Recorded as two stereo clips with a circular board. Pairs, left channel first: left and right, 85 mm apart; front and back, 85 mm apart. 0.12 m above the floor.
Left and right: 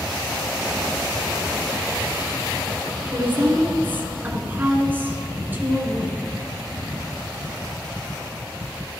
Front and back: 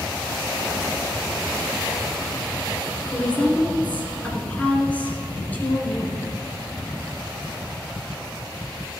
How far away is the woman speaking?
About 1.5 m.